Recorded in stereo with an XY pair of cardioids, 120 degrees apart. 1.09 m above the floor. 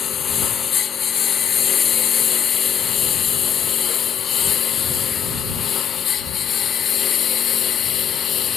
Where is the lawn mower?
45° left; by 8.6 s 50° left.